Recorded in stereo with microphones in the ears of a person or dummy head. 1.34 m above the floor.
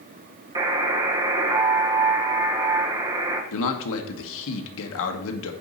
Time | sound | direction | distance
0.6 | a buzzer | 25° right (ahead or behind) | 1.2 m
3.5 | a man speaking | 75° left (ahead or behind) | 1.5 m